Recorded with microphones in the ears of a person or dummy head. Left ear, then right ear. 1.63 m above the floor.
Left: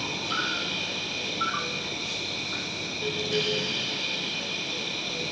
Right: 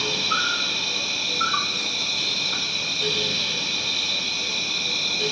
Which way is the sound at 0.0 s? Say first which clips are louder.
Right 6 dB; 80° right.